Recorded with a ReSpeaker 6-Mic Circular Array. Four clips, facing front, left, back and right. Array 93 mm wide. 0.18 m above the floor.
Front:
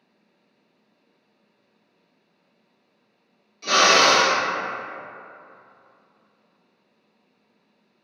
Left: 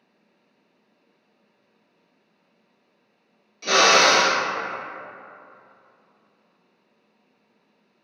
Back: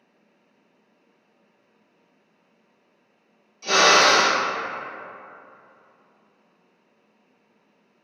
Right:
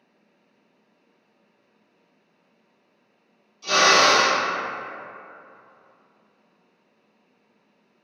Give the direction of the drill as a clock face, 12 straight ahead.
9 o'clock.